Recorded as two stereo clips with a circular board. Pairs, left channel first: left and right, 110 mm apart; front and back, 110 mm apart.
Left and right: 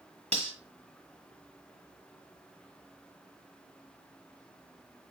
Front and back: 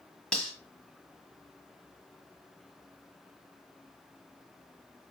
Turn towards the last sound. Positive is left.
turn(degrees=-80)